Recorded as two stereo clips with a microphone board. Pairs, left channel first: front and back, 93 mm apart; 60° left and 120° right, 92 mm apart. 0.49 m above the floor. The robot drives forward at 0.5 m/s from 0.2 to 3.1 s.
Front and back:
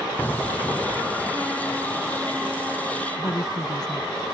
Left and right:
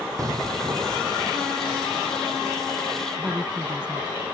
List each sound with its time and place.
0.2 s an explosion: 70° right
3.2 s a woman speaking: 40° right